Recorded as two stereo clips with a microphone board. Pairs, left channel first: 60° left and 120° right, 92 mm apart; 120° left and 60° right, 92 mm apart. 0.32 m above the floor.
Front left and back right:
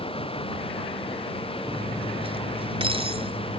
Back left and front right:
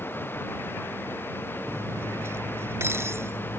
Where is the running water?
55° left.